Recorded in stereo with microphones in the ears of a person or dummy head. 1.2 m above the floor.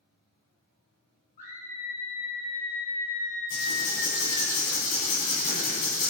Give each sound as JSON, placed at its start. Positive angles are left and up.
{"t": 1.4, "sound": "a scream", "side_deg": 35, "distance_m": 1.6}
{"t": 3.5, "sound": "writing", "side_deg": 45, "distance_m": 2.0}